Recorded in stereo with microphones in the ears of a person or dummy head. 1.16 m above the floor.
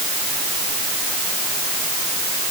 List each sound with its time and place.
Only background noise.